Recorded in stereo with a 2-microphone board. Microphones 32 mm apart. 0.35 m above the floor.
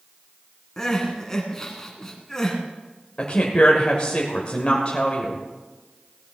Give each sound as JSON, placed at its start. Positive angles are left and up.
{"t": 0.8, "sound": "crying", "side_deg": 15, "distance_m": 1.9}
{"t": 3.2, "sound": "a woman speaking", "side_deg": 35, "distance_m": 1.3}